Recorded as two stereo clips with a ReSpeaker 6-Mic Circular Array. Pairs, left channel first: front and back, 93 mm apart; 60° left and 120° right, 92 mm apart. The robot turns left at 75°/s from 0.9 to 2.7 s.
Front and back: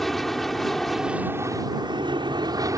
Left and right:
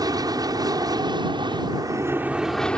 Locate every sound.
0.0 s an aircraft: 85° right; by 2.8 s 140° left